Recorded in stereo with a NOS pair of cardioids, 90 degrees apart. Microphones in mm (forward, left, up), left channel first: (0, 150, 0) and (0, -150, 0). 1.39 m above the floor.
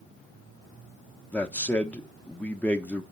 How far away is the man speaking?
About 0.9 m.